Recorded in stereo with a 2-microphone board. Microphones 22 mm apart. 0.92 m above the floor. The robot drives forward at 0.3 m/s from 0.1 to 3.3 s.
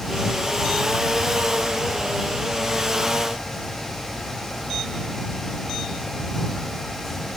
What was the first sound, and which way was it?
Only background noise.